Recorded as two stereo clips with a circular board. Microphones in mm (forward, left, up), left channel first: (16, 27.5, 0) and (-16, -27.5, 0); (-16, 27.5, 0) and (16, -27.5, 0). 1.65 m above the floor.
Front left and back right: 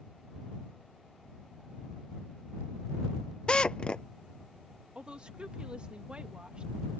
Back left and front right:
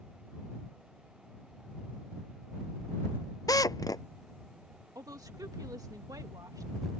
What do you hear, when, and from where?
3.5 s a drill: 135° left
5.0 s a woman speaking: 45° right